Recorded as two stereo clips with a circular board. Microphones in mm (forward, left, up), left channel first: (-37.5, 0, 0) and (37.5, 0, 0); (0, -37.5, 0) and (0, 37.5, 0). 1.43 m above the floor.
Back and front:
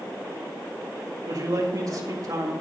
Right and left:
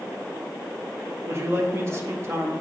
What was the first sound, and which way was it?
A man speaking, 40° left.